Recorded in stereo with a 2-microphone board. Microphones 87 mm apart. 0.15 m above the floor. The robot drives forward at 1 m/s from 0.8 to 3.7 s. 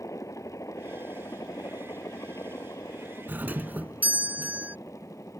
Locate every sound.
0.0 s a helicopter: 35° left (ahead or behind)
3.3 s a doorbell: 20° right (ahead or behind)